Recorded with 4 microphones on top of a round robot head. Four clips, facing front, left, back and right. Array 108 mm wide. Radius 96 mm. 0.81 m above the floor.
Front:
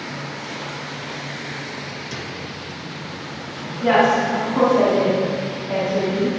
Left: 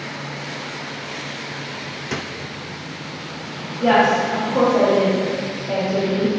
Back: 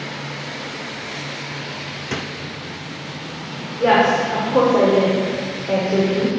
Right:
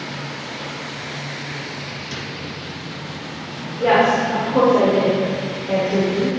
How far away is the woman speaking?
About 2.5 m.